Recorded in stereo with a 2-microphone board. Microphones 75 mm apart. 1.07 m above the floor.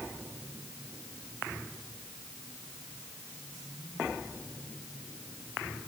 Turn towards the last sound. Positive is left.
No sound to turn to.